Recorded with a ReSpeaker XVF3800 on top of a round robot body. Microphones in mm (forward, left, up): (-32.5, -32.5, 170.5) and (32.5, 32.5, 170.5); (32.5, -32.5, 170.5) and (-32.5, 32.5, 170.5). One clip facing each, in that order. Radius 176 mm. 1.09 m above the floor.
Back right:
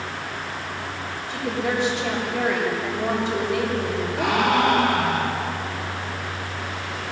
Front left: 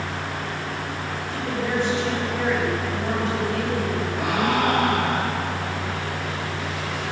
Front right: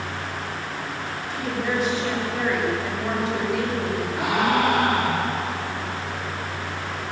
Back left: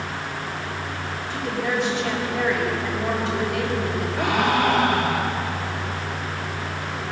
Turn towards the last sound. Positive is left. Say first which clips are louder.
# back right 3 dB, back left 1 dB
turn(degrees=-125)